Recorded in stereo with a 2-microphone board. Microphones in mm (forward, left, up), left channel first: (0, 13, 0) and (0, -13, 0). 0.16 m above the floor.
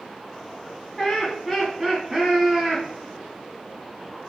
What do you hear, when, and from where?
1.0 s laughter: 20° left (ahead or behind), 1.3 m; by 2.9 s 25° right (ahead or behind), 1.5 m